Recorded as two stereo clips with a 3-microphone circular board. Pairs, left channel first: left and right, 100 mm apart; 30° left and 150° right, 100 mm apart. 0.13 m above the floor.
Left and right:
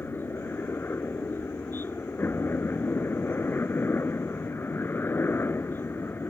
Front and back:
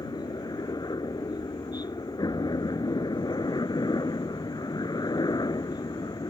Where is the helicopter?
35° left.